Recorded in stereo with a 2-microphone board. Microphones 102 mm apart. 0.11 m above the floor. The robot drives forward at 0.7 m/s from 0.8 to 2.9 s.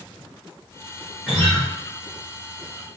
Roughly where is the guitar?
Centre.